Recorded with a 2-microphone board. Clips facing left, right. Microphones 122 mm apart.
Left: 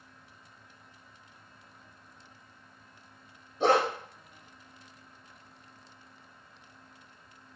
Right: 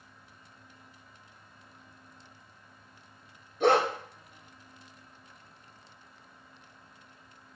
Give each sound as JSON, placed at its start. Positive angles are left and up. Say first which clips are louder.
{"t": 3.6, "sound": "a dog barking", "louder": "right 1 dB", "side_deg": 20, "distance_m": 1.3}